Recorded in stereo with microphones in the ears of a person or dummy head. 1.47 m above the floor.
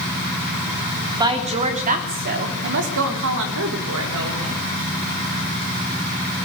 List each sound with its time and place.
1.2 s a woman speaking: 20° right (ahead or behind), 3.5 m; by 4.6 s 85° right, 5 m